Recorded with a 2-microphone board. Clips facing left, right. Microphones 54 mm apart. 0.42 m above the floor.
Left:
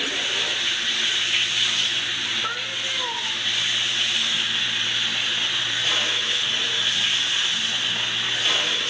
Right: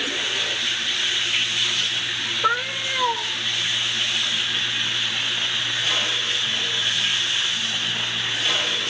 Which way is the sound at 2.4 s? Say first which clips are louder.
Right 6 dB; 35° right (ahead or behind).